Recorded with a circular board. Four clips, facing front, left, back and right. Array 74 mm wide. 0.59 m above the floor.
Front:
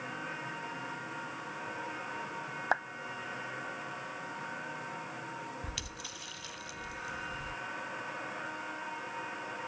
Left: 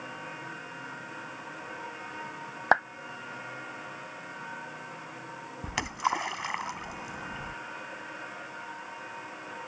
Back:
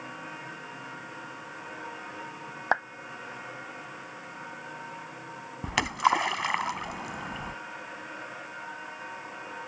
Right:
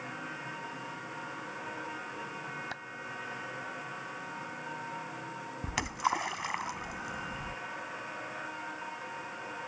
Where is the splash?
175° left.